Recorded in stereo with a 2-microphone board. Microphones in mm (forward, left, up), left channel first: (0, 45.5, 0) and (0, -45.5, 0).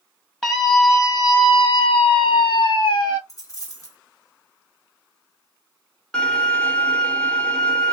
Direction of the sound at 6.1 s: 10° left (ahead or behind).